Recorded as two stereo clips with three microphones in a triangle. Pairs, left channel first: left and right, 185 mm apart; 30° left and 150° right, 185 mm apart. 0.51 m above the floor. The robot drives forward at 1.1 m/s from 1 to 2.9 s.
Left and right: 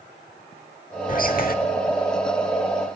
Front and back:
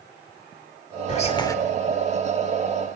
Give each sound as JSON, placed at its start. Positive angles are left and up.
{"t": 1.1, "sound": "whispering", "azimuth_deg": 65, "distance_m": 1.1}